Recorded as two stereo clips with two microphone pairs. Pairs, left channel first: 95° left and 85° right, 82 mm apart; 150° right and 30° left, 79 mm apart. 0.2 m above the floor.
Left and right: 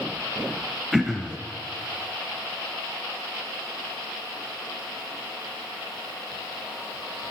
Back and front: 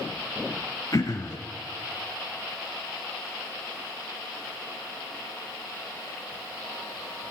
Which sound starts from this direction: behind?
Throat clearing, at 0.9 s.